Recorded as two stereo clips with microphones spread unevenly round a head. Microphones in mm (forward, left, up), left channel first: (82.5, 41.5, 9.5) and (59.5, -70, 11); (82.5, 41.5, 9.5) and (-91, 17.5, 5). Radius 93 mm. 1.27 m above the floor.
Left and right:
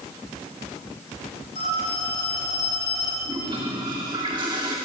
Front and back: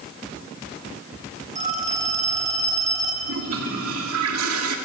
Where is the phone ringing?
140° left, 5 m.